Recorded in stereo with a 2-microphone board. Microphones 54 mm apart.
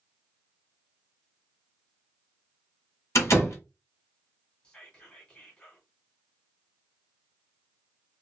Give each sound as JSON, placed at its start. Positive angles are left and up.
{"t": 3.1, "sound": "a door slam", "side_deg": 65, "distance_m": 1.4}
{"t": 4.6, "sound": "whispering", "side_deg": 20, "distance_m": 1.7}